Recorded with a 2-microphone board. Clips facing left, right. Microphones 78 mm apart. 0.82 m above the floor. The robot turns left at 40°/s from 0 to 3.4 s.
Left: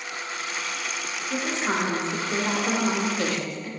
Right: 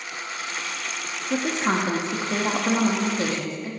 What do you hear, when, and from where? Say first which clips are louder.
1.3 s a woman speaking: right 3 dB; 70° right, 0.9 m; by 3.7 s 150° right, 0.9 m